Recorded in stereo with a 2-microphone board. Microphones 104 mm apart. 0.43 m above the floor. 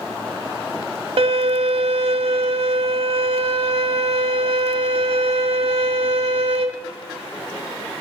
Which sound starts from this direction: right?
A violin, at 1.2 s.